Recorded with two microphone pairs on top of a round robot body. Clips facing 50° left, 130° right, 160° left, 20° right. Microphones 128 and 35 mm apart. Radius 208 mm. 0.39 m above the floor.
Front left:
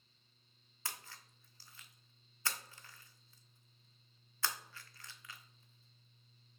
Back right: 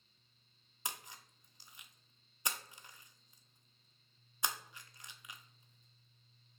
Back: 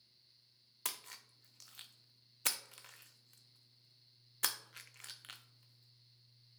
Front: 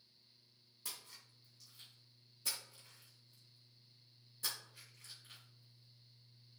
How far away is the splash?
About 0.5 m.